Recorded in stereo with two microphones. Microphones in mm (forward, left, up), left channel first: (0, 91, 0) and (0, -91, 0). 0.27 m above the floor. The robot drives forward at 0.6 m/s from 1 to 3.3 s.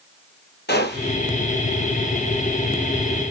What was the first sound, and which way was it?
A gunshot, 65° left (ahead or behind).